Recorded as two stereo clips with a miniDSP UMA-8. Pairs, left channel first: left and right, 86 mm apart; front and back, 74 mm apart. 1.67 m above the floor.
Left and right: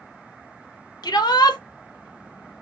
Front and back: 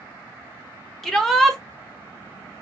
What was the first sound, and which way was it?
A shout, 85° left.